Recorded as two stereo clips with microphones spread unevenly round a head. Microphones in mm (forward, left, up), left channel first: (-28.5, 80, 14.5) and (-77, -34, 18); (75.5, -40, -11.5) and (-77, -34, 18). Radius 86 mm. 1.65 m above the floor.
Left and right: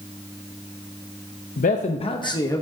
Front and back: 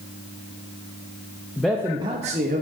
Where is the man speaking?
80° left, 0.7 m; by 2.6 s 135° left, 1.2 m.